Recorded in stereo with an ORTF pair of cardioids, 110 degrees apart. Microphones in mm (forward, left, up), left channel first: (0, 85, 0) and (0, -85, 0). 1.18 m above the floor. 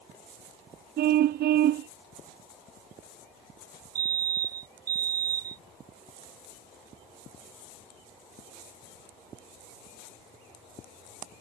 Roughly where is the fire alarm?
Ahead right.